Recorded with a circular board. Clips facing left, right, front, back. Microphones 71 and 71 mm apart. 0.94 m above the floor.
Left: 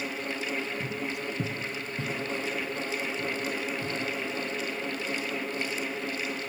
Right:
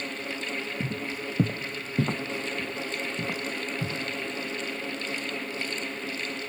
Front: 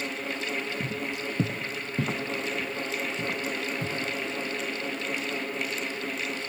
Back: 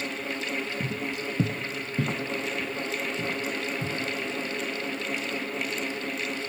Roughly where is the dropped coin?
I don't hear a dropped coin.